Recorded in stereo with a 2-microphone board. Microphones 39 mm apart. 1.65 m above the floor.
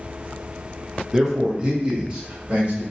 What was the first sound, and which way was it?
A man speaking, 10° right (ahead or behind).